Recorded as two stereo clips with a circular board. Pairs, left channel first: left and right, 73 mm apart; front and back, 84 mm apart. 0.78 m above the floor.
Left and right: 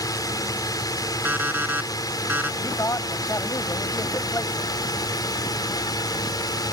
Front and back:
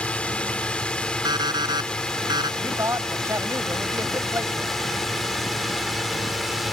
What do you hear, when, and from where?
0.0 s a drone: 75° left; by 6.7 s 90° left
1.2 s an alarm clock: 150° right
2.6 s a man speaking: 130° left